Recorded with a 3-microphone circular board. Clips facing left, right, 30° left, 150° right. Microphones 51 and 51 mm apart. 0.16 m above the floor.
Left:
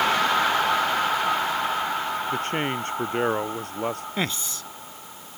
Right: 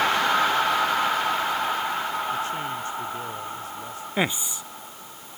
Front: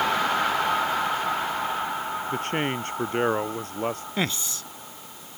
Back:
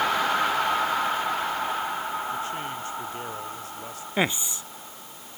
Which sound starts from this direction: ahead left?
A man speaking, at 2.3 s.